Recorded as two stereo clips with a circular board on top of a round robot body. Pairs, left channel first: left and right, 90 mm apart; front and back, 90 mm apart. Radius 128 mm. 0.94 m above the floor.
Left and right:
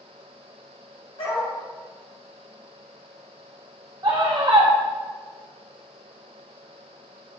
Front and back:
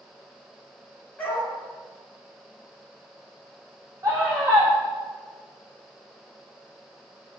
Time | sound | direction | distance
1.2 | a dog barking | 80° left | 2.5 m
4.0 | a scream | 130° right | 1.1 m